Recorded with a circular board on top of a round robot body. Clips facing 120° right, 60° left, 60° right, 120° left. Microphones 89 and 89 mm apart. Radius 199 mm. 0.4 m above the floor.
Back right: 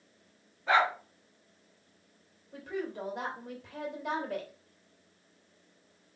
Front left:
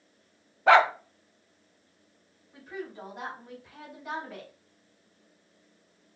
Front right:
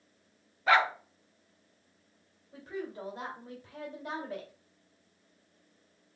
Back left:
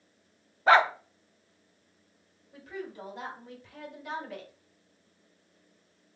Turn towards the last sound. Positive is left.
turn(degrees=-110)